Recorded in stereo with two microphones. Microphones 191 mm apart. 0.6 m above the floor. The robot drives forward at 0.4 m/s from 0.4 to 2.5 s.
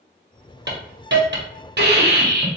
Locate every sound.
0.7 s a hiss: 65° right (ahead or behind), 1.0 m; by 2.5 s 55° right (ahead or behind), 1.1 m